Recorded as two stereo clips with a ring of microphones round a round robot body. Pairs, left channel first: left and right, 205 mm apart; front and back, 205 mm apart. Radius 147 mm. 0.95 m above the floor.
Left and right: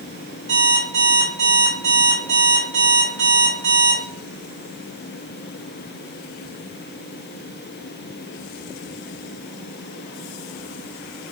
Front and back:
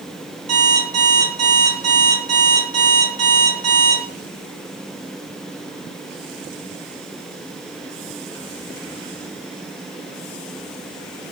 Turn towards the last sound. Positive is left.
turn(degrees=-145)